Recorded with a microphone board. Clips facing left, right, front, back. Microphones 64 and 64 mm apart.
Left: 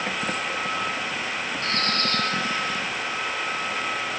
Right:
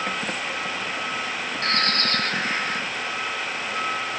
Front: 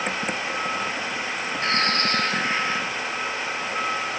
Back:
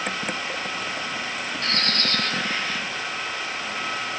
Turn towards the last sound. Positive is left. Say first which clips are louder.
# right 3 dB, front 4 dB
turn(degrees=-65)